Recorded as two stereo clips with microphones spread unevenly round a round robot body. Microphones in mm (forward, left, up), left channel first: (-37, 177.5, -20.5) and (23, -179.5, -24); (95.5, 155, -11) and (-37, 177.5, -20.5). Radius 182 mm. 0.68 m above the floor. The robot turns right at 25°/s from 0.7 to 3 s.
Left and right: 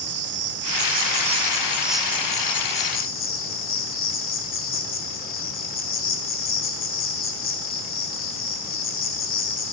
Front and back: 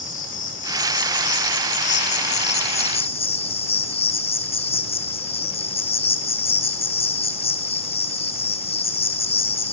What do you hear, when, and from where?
0.0 s an insect: 25° right, 0.8 m; by 9.7 s 35° left, 0.8 m